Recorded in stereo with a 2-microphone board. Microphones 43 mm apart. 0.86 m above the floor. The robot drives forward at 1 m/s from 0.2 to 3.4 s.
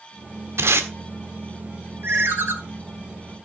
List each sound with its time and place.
0.6 s tape being pulled: 75° right (ahead or behind), 1.6 m; by 0.9 s 65° right (ahead or behind), 1.7 m
2.0 s a ringtone: 55° right (ahead or behind), 2 m; by 2.5 s 70° right (ahead or behind), 1.8 m